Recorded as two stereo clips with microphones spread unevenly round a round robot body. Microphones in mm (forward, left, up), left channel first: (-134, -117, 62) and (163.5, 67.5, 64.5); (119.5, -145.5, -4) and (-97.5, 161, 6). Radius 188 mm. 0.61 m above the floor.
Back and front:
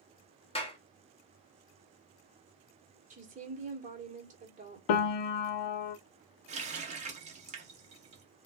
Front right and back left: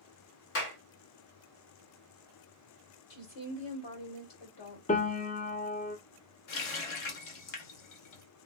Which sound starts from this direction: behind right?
A piano, at 4.9 s.